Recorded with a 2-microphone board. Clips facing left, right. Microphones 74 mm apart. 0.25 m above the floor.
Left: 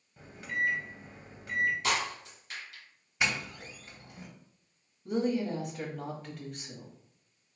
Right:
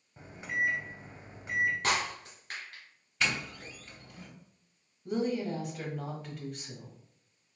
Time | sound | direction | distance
0.2 | a microwave | 25° right (ahead or behind) | 0.8 m
1.8 | breaking glass | 45° right (ahead or behind) | 2.0 m
3.2 | a doorbell | 15° left (ahead or behind) | 1.7 m
5.0 | a woman speaking | centre (ahead or behind) | 1.0 m